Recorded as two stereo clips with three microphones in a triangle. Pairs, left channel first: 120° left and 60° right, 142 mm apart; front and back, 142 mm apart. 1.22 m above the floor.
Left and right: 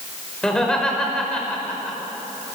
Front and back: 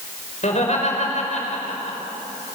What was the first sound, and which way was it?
Laughter, 35° left.